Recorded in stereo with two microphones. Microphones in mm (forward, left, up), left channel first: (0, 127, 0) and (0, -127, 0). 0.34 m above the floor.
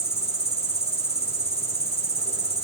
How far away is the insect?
About 3.5 m.